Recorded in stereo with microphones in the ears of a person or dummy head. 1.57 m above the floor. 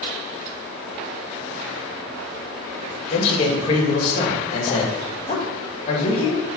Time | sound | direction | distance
3.1 | a man speaking | 30° left (ahead or behind) | 2.5 m